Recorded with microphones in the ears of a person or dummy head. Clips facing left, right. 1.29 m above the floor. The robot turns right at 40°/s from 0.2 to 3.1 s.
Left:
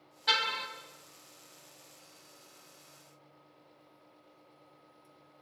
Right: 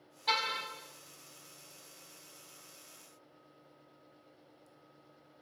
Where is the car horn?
10° left (ahead or behind), 4 m; by 0.7 s 5° right (ahead or behind), 4 m.